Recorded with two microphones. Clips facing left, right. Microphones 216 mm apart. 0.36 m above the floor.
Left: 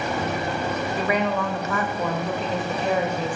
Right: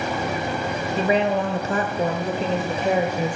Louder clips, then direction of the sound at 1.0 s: Right 5 dB; 25° right (ahead or behind).